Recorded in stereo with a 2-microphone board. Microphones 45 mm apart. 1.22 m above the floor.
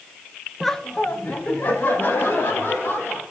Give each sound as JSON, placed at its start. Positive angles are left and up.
{"t": 0.6, "sound": "laughter", "side_deg": -5, "distance_m": 0.7}